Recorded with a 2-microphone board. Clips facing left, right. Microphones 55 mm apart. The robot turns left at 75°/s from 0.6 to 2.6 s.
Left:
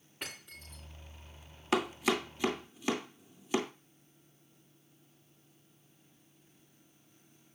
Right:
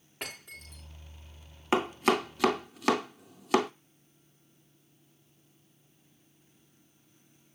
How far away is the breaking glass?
About 7.5 m.